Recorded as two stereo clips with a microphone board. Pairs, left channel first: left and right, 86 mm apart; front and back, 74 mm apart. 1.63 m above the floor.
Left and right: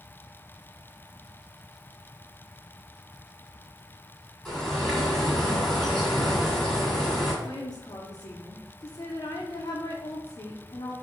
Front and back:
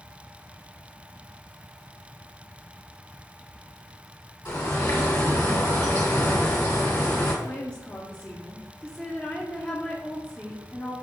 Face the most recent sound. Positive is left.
turn(degrees=70)